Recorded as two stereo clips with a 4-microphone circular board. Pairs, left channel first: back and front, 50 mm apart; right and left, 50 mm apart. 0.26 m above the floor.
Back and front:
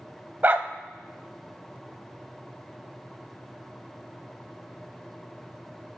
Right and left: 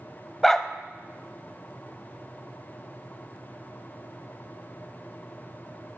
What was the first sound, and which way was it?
A dog barking, 10° right.